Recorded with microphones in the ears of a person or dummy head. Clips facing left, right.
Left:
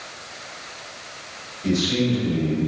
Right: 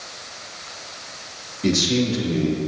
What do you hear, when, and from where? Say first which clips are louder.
1.6 s a man speaking: right 1 dB; 60° right (ahead or behind), 2.5 m